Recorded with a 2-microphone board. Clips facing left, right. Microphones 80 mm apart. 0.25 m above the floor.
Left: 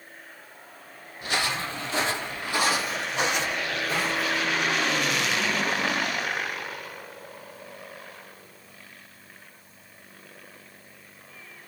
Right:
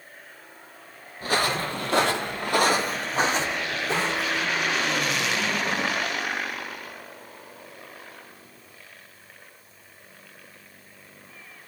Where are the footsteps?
45° right (ahead or behind), 0.6 m; by 4.5 s 30° right (ahead or behind), 1.5 m.